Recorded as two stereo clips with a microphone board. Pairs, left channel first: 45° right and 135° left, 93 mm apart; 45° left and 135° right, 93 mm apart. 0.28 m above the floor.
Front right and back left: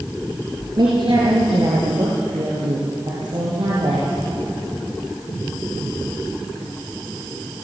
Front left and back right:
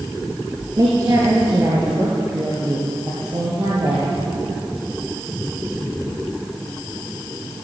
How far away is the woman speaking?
About 4 m.